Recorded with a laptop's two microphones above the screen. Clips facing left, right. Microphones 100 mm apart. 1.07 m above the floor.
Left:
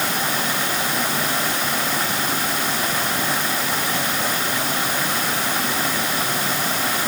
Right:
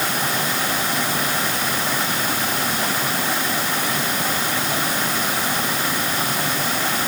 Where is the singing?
I don't hear singing.